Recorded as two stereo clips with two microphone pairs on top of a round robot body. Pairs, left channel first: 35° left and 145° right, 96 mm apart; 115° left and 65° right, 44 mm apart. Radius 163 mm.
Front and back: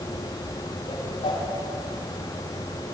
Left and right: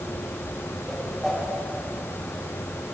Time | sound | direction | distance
0.9 | a whoosh | 25° left | 9 m